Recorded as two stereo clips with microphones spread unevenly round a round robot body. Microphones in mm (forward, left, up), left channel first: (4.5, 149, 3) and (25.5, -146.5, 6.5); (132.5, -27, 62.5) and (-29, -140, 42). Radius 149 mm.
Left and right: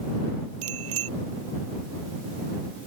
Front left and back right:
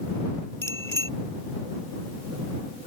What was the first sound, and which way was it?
A bicycle bell, 40° right.